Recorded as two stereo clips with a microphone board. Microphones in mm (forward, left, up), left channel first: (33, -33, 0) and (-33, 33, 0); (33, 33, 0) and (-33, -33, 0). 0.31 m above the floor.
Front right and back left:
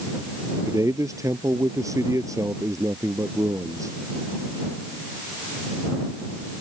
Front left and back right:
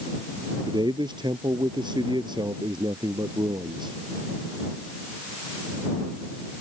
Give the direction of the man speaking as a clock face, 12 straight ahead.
6 o'clock.